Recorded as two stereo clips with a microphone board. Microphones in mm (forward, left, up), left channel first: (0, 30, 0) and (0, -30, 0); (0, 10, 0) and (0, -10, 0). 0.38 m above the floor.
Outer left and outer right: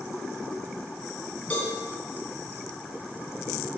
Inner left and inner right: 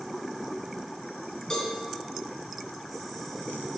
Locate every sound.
1.5 s a cowbell: 25° left (ahead or behind), 3 m